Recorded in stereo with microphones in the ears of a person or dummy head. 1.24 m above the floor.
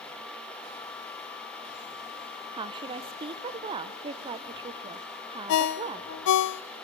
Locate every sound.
2.5 s a woman speaking: 25° right (ahead or behind), 0.7 m
5.5 s a ringtone: 65° left (ahead or behind), 0.5 m